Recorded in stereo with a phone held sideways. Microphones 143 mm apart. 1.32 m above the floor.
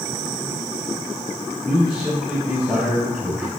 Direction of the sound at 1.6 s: 10° right (ahead or behind).